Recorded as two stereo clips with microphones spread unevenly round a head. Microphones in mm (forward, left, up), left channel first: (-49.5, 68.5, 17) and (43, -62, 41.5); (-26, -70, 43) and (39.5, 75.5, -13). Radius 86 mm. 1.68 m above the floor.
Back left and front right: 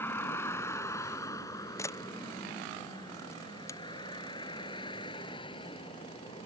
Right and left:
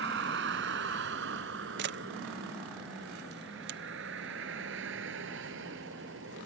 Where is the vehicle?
45° left; by 6.5 s 65° left.